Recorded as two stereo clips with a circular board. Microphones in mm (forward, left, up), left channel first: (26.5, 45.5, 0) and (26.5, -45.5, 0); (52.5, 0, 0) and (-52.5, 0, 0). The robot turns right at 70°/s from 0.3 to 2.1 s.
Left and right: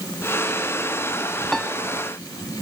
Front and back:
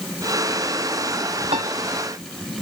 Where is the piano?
175° left; by 1.7 s 170° right.